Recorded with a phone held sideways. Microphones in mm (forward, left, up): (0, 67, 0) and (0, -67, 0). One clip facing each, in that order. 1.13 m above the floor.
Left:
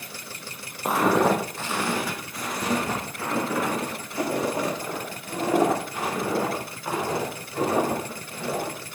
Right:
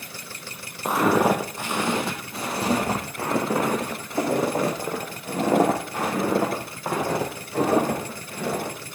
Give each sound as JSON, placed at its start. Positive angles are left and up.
{"t": 0.8, "sound": "footsteps", "side_deg": 0, "distance_m": 1.8}